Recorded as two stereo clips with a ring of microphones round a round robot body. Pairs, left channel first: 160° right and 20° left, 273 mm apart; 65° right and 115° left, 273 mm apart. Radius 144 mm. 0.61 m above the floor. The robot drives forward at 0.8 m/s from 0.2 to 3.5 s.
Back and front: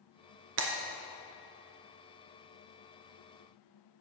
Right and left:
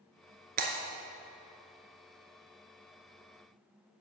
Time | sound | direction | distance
0.6 | breaking glass | 55° left | 0.9 m